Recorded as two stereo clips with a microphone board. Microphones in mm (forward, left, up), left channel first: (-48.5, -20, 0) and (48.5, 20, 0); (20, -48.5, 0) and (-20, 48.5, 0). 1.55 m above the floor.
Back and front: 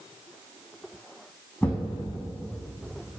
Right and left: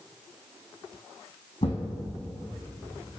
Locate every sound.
1.6 s a thud: 80° right, 5 m